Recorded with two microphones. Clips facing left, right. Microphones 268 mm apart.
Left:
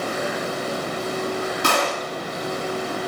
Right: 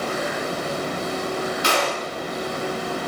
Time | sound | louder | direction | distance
1.6 | a gunshot | even | 55° left (ahead or behind) | 3.5 m